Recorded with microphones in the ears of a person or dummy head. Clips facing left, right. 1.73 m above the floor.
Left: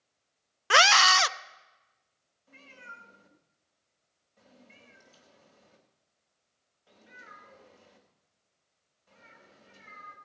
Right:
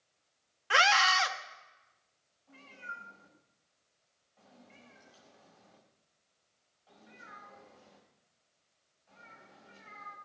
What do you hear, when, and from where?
0.7 s a scream: 75° left (ahead or behind), 0.6 m
2.5 s a cat meowing: 70° left (ahead or behind), 4 m